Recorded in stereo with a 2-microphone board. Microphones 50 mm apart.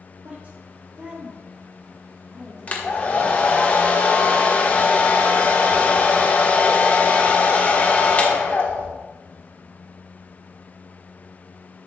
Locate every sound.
0.2 s a woman speaking: 35° right (ahead or behind), 1.1 m; by 3.7 s 5° right (ahead or behind), 2.5 m
2.7 s a hair dryer: 30° left (ahead or behind), 1.3 m